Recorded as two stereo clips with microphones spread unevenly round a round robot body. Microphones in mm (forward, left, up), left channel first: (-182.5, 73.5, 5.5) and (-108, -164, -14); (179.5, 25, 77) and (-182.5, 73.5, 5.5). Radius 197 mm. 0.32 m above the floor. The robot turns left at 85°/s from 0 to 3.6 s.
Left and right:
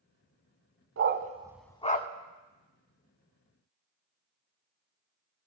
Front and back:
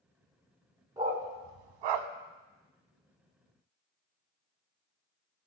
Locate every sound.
1.0 s a dog barking: 105° right, 0.9 m; by 2.1 s 160° left, 0.9 m